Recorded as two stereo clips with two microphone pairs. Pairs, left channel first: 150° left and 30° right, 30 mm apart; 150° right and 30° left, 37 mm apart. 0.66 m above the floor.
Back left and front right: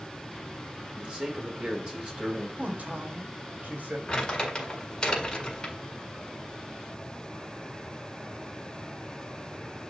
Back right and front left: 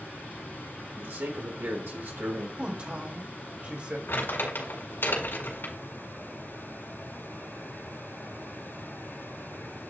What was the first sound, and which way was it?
A man speaking, 20° left.